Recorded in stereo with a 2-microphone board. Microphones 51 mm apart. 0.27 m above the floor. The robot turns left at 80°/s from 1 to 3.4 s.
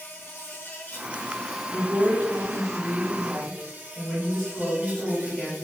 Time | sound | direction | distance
0.0 | an insect | 45° left | 0.9 m
1.7 | a woman speaking | 10° left (ahead or behind) | 1.1 m